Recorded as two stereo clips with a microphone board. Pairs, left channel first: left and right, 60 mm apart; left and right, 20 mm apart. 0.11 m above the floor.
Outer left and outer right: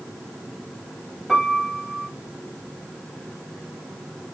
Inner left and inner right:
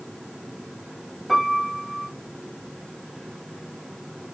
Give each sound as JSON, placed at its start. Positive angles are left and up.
{"t": 1.3, "sound": "a piano", "side_deg": -5, "distance_m": 3.0}